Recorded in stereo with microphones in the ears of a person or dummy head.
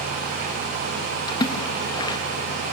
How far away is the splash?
About 2.5 m.